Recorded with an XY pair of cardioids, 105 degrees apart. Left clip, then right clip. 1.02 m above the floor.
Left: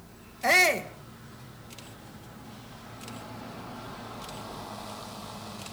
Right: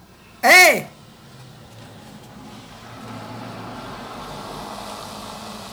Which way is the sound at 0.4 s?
70° right.